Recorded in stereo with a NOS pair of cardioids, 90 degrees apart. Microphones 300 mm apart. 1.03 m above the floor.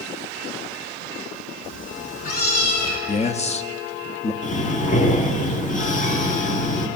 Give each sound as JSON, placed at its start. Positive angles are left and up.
{"t": 1.6, "sound": "a cat meowing", "azimuth_deg": 40, "distance_m": 4.0}
{"t": 3.1, "sound": "a man speaking", "azimuth_deg": 20, "distance_m": 1.0}
{"t": 4.4, "sound": "breathing", "azimuth_deg": 25, "distance_m": 1.8}